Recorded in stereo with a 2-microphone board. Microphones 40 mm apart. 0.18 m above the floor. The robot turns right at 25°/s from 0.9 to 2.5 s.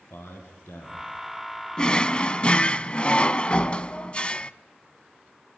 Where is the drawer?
25° left (ahead or behind), 0.6 m; by 4.5 s 30° left (ahead or behind), 0.6 m.